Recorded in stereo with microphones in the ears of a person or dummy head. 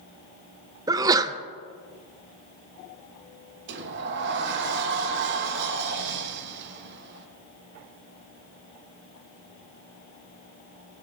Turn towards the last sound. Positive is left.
turn(degrees=-55)  # may be behind; listen again after turning